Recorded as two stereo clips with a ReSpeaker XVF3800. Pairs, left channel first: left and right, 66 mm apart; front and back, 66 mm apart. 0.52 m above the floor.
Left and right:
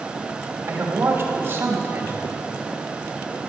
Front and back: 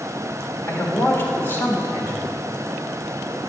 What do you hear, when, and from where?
0.7 s a man speaking: 45° right, 2 m